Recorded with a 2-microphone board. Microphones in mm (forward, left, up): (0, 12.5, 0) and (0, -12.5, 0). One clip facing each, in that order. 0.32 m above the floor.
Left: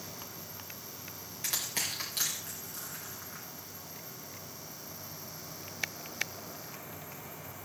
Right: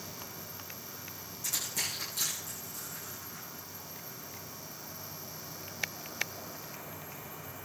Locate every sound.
1.4 s crushing: 60° left (ahead or behind), 10 m